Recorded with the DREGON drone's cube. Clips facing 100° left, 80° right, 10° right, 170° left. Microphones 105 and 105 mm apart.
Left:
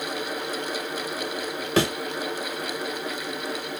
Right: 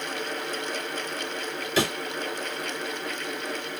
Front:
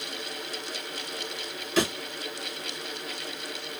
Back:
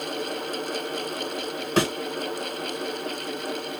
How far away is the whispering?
No whispering in this recording.